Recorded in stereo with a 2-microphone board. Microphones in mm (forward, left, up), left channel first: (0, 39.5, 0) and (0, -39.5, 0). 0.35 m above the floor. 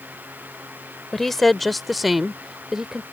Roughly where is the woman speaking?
Centre.